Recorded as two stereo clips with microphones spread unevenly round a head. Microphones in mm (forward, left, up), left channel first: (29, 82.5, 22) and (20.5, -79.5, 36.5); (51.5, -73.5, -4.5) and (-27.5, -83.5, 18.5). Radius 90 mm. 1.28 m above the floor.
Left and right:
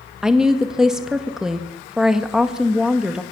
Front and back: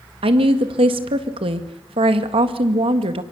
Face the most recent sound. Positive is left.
turn(degrees=180)